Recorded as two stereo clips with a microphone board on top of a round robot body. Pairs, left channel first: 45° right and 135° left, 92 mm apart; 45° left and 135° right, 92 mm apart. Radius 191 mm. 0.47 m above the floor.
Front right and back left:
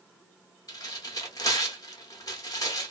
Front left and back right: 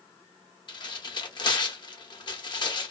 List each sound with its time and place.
0.7 s tearing paper: 5° left, 0.9 m